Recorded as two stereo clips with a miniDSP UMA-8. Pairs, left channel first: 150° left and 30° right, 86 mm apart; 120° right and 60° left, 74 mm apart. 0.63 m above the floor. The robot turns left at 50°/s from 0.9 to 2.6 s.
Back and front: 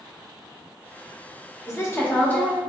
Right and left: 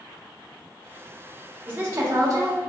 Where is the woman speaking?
115° left, 0.9 m; by 2.6 s 70° left, 0.9 m.